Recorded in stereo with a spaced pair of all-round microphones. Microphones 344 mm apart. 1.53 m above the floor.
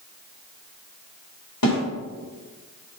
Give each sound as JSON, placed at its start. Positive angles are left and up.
{"t": 1.6, "sound": "a snare drum", "side_deg": 85, "distance_m": 4.0}